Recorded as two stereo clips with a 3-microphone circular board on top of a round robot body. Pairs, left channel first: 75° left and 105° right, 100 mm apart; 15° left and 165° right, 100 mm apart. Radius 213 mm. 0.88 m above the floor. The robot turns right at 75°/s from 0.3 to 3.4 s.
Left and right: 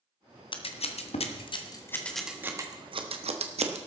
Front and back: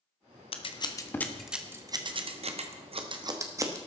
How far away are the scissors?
About 1.5 m.